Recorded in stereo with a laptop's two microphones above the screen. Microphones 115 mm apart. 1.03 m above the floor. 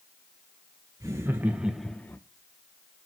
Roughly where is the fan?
I don't hear a fan.